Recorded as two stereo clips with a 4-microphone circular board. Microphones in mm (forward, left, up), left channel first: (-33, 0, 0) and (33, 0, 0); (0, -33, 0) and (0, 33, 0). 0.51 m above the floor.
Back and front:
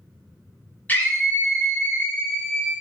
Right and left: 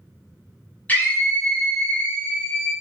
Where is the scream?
130° right, 0.9 m.